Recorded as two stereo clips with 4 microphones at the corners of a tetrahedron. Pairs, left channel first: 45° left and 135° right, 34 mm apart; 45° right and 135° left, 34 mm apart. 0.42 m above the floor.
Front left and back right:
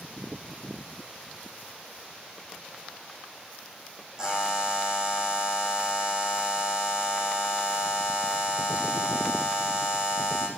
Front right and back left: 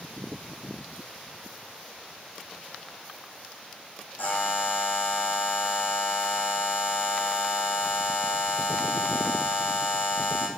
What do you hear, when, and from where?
4.2 s a buzzer: 60° right, 9 m